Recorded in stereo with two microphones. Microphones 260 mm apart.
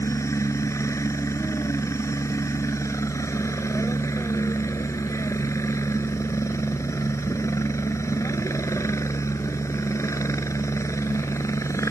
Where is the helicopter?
10° left (ahead or behind).